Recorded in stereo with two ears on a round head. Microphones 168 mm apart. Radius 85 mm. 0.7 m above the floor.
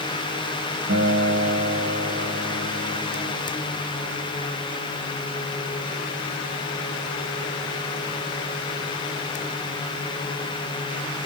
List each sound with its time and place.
0.9 s a guitar: 60° right (ahead or behind), 5 m